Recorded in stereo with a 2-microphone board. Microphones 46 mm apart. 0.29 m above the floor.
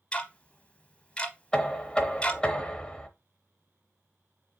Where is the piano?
No piano in this recording.